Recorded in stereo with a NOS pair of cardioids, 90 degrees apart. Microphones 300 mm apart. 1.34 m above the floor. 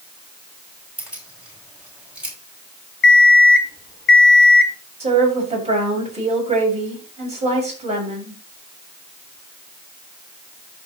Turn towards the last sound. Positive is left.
turn(degrees=-20)